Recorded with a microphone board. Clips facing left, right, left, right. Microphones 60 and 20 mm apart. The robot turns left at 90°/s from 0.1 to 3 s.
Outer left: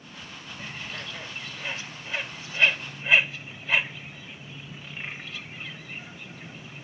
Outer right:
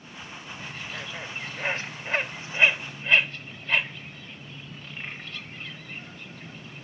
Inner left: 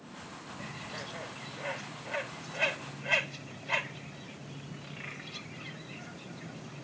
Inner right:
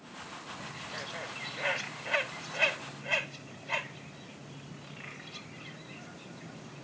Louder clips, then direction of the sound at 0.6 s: Even, even; 20° left (ahead or behind).